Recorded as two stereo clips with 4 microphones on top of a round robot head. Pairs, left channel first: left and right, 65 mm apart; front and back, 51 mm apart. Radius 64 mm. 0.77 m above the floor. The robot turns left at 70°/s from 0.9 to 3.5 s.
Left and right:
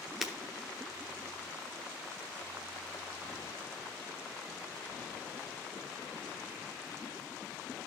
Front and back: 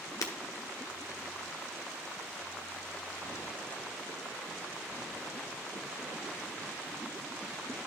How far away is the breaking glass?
About 1.0 m.